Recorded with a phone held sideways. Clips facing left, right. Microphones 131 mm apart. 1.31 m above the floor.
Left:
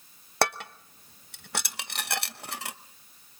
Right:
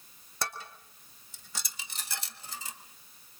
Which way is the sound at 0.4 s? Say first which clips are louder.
Left 11 dB; 70° left (ahead or behind).